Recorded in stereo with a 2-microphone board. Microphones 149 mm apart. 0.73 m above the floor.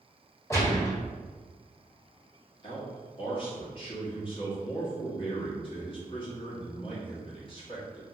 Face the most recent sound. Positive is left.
turn(degrees=35)  # may be behind; listen again after turning